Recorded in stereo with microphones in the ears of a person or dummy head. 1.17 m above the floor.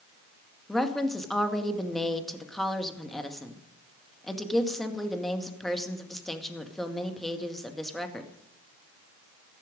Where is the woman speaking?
5° left (ahead or behind), 1.9 m.